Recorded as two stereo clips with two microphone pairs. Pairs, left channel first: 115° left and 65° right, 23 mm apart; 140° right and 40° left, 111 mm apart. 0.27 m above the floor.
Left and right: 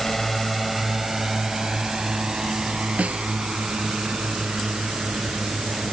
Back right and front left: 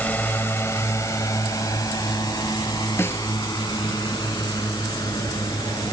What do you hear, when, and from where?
0.0 s a drone: 175° left; by 5.9 s 85° right
3.0 s a snare drum: 70° right